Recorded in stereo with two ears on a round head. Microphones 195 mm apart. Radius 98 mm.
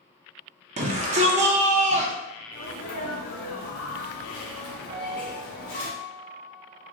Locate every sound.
0.8 s a shout: 30° right (ahead or behind), 0.7 m
2.5 s a sneeze: 60° left (ahead or behind), 2.0 m
4.9 s a piano: 35° right (ahead or behind), 1.0 m